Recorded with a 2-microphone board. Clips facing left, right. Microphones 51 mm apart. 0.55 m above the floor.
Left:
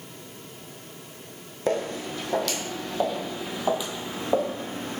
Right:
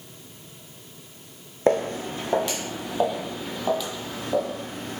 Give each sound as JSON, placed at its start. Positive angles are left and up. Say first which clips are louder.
{"t": 1.7, "sound": "footsteps", "louder": "right 5 dB", "side_deg": -40, "distance_m": 1.4}